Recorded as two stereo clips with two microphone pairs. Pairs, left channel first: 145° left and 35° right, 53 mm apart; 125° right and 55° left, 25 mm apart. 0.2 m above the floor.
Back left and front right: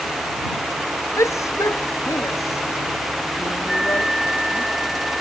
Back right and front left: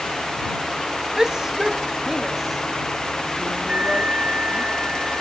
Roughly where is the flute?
Ahead left.